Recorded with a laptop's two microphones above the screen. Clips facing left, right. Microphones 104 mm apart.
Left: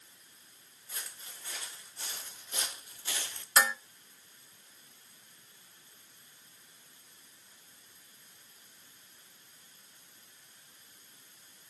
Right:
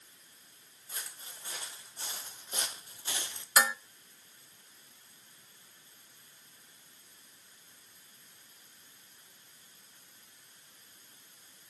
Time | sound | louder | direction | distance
0.9 | footsteps | right 1 dB | 30° right (ahead or behind) | 4 m
3.6 | dishes clattering | even | 10° right (ahead or behind) | 0.9 m